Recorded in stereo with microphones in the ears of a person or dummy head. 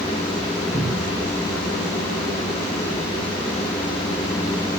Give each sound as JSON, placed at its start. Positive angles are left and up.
{"t": 0.7, "sound": "a cupboard door", "side_deg": -10, "distance_m": 0.6}